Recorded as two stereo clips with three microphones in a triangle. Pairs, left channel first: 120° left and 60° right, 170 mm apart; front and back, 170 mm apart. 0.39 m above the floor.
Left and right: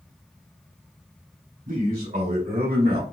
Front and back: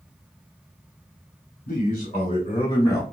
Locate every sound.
1.7 s a man speaking: 35° right, 2.5 m; by 3.0 s 70° right, 2.5 m